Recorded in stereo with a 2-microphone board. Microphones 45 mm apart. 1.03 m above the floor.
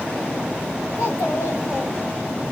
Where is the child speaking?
55° left (ahead or behind), 2 m; by 2.4 s 45° left (ahead or behind), 1.2 m.